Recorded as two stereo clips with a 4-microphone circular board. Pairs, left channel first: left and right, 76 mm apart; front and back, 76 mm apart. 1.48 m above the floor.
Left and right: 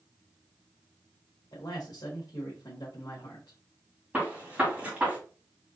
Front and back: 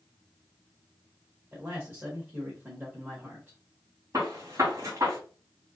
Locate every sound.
1.5 s a man speaking: 120° left, 1.3 m
4.1 s a gunshot: 155° right, 1.8 m